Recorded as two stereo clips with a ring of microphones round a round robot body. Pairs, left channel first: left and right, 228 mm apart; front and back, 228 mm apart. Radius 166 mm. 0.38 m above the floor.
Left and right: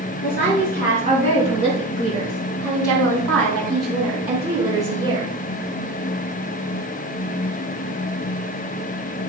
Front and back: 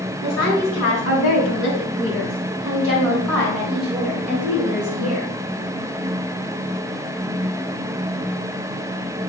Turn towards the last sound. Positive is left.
turn(degrees=-120)